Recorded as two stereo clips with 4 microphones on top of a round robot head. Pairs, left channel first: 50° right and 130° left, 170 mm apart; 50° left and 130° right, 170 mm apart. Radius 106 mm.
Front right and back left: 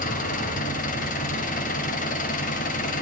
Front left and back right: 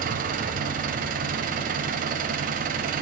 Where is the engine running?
90° right, 2 m.